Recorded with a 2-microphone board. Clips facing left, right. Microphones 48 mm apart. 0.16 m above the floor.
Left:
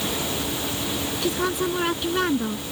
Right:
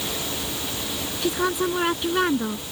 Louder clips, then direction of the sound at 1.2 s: Right 2 dB; 10° right (ahead or behind).